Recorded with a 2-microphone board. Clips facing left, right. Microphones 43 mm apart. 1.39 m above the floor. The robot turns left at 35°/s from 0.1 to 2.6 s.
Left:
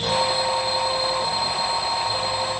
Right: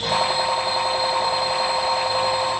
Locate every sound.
Only background noise.